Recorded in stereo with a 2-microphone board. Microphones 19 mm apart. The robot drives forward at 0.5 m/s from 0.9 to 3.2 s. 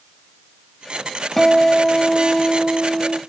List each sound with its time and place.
1.4 s a guitar: 5° left (ahead or behind), 0.7 m